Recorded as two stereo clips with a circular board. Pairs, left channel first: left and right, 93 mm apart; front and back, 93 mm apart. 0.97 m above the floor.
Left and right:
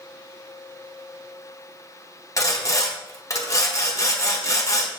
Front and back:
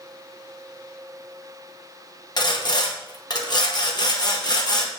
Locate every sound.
2.4 s sawing: 35° left, 0.9 m